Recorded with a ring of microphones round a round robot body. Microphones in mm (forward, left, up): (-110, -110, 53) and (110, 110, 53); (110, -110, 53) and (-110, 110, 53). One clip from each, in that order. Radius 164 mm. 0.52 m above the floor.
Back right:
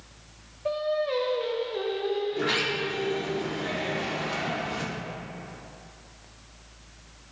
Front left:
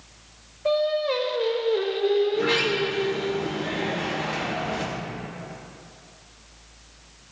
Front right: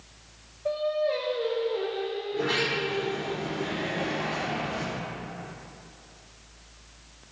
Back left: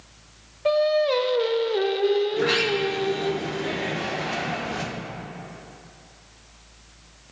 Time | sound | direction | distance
0.7 | singing | 125° left | 0.7 m
2.3 | a sliding door | 175° left | 1.4 m